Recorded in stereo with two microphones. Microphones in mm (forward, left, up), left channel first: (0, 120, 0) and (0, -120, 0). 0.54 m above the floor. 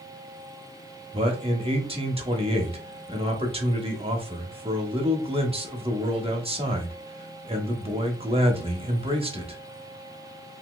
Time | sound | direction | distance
1.1 | a man speaking | 25° right (ahead or behind) | 0.9 m